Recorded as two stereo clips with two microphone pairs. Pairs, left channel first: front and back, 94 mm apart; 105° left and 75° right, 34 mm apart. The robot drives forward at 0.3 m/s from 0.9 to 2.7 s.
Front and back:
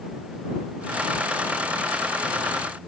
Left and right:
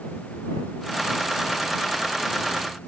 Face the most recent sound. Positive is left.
No sound to turn to.